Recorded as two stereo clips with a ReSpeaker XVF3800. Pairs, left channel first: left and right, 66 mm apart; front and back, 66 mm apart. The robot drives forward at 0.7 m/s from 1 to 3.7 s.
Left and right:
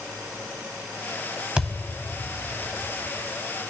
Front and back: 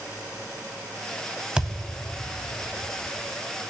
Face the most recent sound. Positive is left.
turn(degrees=-175)